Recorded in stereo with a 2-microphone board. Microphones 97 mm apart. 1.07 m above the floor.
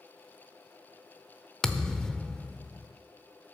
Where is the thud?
5° left (ahead or behind), 0.8 m.